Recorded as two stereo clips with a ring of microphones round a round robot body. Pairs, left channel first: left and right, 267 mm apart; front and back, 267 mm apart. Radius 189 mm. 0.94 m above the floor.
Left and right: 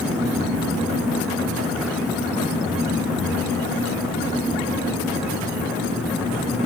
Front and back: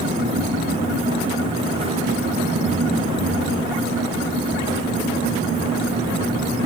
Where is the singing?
I don't hear singing.